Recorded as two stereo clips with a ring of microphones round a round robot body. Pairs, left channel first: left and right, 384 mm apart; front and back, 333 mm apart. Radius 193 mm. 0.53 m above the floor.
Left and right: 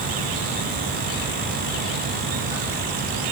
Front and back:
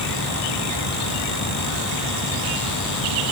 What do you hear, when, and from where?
Only background noise.